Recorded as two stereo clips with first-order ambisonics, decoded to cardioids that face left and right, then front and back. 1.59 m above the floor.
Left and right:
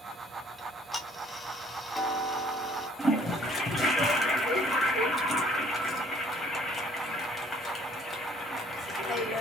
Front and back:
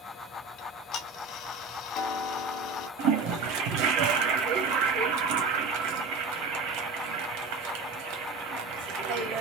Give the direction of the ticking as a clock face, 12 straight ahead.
12 o'clock.